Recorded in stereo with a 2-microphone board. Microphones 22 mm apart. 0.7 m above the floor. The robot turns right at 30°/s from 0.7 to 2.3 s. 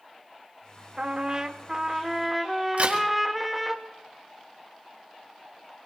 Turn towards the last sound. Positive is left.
turn(degrees=-80)